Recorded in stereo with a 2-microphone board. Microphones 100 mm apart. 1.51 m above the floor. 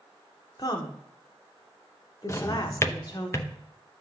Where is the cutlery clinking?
No cutlery clinking in this recording.